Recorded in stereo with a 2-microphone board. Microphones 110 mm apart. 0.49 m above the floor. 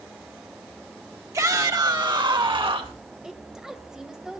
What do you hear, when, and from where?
1.3 s a shout: 30° right (ahead or behind), 2 m; by 3.0 s 55° right (ahead or behind), 2.5 m
3.2 s a woman speaking: 5° right (ahead or behind), 3 m